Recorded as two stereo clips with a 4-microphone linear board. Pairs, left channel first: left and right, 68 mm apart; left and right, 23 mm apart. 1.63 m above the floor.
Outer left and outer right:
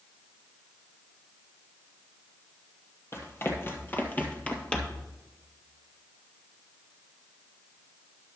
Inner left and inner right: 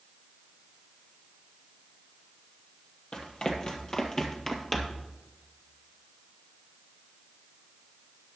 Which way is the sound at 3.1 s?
40° left (ahead or behind).